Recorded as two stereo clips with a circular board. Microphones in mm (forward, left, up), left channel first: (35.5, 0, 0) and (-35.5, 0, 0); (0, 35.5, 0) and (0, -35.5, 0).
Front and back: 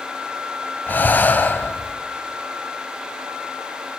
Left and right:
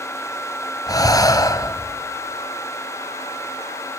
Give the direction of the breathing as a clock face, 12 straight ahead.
10 o'clock.